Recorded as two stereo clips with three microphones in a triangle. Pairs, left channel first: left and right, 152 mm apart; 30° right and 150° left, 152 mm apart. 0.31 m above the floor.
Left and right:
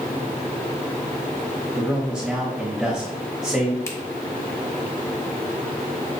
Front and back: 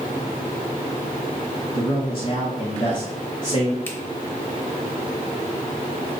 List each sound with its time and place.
1.7 s a man speaking: 10° right, 1.1 m
3.9 s a finger snap: 30° left, 0.8 m